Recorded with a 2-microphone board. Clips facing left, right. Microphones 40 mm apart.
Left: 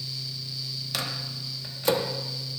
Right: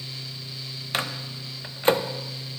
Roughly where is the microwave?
Right.